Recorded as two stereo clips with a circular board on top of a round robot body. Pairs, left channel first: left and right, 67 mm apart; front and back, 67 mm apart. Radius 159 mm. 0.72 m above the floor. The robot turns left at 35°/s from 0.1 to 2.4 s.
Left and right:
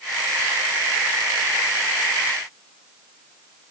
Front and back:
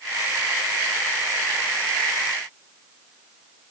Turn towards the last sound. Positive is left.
No sound to turn to.